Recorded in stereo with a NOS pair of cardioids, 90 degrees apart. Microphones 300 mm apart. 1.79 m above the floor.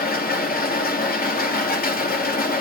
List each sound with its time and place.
0.0 s a machine running: 30° left, 3 m